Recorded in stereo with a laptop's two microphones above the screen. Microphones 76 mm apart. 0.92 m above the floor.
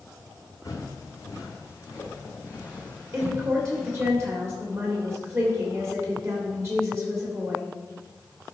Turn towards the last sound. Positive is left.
turn(degrees=-35)  # may be behind; listen again after turning